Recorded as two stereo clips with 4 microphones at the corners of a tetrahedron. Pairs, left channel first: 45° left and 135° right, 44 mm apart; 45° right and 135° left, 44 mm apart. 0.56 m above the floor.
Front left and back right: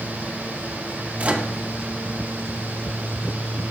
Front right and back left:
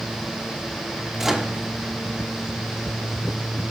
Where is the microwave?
150° right, 0.9 m.